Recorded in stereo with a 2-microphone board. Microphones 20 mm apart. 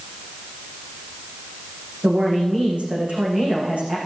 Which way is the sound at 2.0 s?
80° right.